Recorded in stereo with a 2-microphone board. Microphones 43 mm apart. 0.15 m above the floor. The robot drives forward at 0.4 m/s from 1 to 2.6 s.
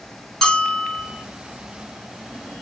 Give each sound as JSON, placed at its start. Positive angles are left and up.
{"t": 0.4, "sound": "a bell", "side_deg": 15, "distance_m": 1.4}